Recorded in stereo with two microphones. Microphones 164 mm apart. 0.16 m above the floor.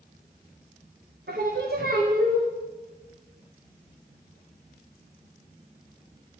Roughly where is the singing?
Right.